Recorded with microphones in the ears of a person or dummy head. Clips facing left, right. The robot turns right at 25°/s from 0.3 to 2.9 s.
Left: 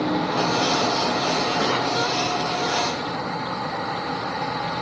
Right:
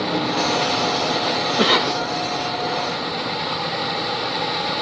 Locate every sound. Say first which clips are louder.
1.6 s a cough: right 3 dB; 65° right (ahead or behind), 1.0 m; by 2.0 s 60° right (ahead or behind), 1.0 m